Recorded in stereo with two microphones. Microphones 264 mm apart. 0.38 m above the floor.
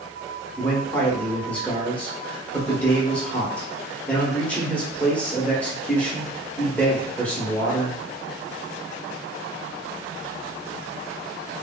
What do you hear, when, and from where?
0.6 s a man speaking: 5° left (ahead or behind), 0.8 m